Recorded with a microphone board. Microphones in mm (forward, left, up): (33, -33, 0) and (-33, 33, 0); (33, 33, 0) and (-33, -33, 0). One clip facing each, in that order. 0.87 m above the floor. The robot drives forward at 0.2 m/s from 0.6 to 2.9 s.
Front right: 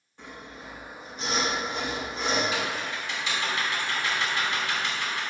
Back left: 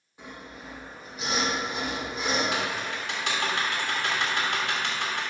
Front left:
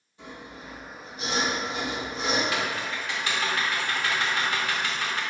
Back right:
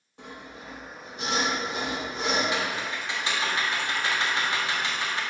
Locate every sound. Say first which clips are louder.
0.2 s sawing: even, even; 145° right, 2.5 m; by 2.4 s 150° right, 3 m
2.5 s typing on a keyboard: even, even; 160° left, 1.5 m